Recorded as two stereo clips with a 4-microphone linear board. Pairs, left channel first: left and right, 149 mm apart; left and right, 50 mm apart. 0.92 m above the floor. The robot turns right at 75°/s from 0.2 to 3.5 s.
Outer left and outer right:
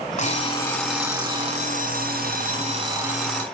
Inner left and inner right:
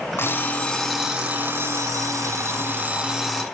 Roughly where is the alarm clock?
Behind left.